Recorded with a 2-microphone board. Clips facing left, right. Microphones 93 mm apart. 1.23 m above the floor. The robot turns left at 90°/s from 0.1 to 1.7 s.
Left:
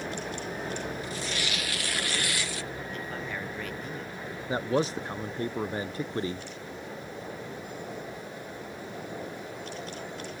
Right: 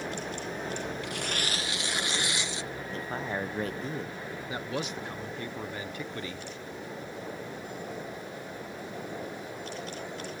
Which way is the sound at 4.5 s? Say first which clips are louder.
Left 8 dB; 35° left (ahead or behind).